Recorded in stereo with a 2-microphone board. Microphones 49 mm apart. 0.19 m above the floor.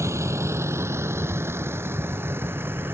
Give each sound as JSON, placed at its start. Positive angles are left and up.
{"t": 0.0, "sound": "a vehicle", "side_deg": -75}